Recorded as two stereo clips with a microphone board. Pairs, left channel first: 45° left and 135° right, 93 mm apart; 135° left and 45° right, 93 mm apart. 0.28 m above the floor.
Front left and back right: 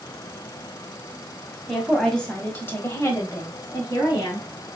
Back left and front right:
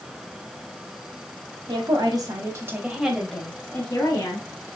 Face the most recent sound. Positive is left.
turn(degrees=95)